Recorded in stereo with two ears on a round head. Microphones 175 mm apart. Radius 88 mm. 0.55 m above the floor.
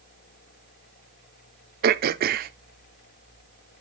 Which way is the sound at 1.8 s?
50° right (ahead or behind).